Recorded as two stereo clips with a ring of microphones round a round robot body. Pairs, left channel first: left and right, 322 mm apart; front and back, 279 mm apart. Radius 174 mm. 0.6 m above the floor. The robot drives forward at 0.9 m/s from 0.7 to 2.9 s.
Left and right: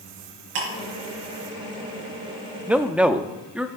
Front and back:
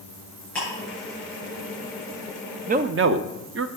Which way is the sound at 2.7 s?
170° right.